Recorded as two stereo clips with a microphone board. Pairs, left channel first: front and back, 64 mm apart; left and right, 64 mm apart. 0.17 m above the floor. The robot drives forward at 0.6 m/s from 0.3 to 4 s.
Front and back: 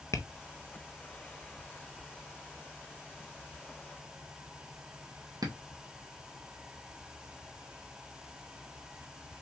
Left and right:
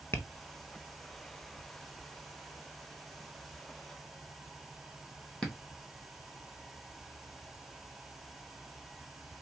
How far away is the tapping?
About 0.8 m.